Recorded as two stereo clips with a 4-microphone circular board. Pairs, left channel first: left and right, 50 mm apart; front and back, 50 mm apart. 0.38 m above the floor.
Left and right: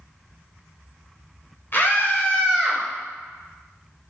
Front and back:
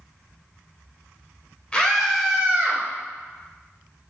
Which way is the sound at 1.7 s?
65° left.